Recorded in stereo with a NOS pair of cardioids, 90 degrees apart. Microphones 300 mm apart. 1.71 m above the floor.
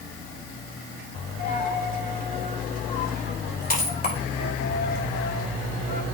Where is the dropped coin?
30° left, 3.5 m.